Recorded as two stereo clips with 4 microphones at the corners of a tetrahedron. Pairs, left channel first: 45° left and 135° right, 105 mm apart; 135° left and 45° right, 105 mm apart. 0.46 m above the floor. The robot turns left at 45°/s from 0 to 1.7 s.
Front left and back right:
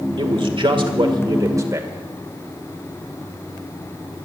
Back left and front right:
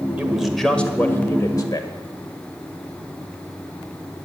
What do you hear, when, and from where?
0.2 s a man speaking: 120° right, 1.7 m; by 1.9 s 170° left, 1.7 m